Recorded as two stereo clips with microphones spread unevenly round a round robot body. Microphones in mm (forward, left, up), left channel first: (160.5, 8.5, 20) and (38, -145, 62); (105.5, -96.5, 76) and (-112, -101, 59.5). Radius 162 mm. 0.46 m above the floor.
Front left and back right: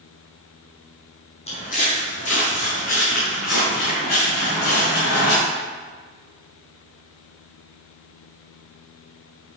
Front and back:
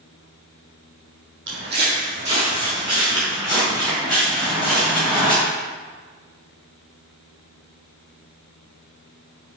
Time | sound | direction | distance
1.5 | footsteps | 130° left | 1.0 m